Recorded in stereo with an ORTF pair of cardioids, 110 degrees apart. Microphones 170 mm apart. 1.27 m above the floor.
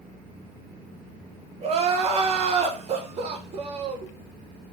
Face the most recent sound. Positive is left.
turn(degrees=-40)